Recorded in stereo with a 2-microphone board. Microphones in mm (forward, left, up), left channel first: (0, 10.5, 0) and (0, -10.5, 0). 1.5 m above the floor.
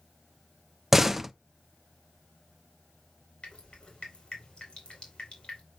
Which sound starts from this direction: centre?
A door slam, at 0.9 s.